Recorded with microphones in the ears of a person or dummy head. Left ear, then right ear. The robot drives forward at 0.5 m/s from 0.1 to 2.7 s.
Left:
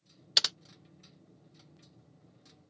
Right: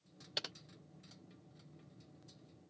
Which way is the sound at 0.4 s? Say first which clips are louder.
Left 15 dB; 45° left (ahead or behind).